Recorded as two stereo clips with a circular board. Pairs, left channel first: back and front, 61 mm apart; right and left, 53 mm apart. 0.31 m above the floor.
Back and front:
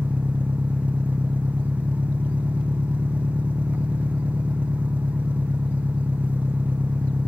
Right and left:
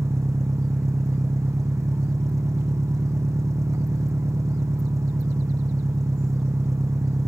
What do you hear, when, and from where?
0.0 s an engine running: 65° left